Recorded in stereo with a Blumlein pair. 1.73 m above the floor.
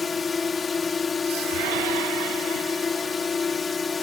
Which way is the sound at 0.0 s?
15° left.